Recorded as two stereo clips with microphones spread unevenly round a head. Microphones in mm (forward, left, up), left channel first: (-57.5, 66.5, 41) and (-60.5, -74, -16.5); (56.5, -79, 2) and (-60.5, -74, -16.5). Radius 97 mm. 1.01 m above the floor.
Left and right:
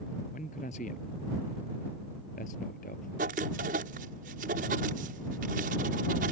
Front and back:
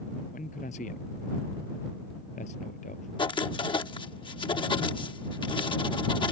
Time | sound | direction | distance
0.3 | a man speaking | 40° left | ?
3.2 | writing | 45° right | ?